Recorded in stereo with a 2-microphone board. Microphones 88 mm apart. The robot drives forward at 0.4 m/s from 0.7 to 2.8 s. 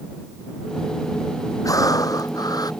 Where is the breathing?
45° left (ahead or behind); by 2.7 s 50° left (ahead or behind).